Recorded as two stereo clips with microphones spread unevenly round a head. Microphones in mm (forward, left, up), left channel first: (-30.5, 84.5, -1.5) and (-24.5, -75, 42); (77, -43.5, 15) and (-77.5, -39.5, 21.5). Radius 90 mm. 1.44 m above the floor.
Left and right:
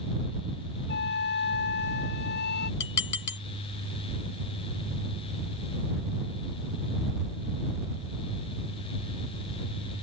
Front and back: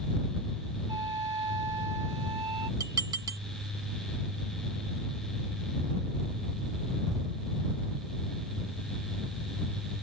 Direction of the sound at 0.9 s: 105° left.